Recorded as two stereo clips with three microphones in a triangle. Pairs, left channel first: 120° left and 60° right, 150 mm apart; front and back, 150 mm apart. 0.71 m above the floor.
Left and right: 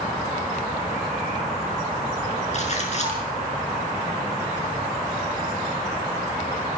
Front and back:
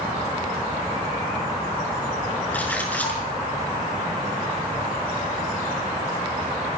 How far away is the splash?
About 5.5 m.